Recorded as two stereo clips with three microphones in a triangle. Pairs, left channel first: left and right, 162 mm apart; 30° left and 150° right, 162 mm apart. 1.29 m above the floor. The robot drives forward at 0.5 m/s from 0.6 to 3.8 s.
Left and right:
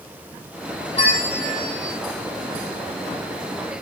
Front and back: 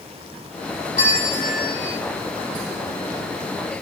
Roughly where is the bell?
Ahead left.